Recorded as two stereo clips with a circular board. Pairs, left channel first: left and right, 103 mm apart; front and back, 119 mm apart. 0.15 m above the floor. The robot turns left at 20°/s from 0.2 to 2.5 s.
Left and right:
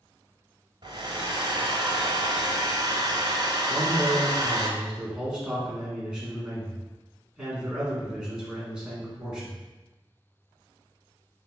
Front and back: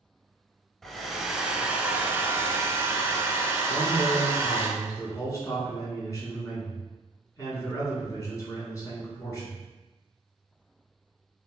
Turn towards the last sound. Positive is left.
turn(degrees=-15)